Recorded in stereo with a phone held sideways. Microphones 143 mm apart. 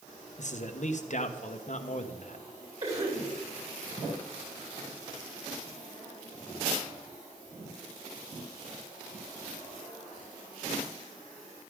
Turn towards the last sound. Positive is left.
turn(degrees=-50)  # may be behind; listen again after turning